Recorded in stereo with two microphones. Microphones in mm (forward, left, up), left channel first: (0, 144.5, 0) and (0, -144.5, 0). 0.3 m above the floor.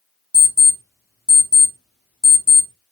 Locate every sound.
0.3 s an alarm clock: centre (ahead or behind), 0.9 m